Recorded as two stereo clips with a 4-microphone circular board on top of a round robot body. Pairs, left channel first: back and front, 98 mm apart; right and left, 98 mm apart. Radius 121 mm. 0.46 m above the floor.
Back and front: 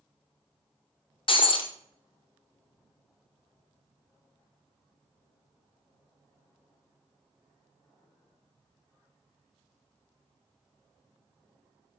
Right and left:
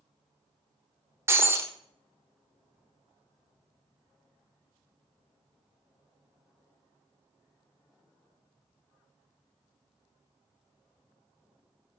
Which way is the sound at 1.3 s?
155° left.